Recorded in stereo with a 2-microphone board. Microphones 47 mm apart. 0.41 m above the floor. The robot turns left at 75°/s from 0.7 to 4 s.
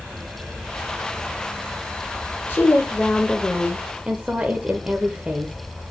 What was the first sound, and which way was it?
A woman speaking, 80° left.